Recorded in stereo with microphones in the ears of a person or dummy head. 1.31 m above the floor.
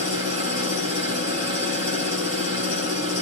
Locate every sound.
0.0 s an engine running: 25° right (ahead or behind), 5 m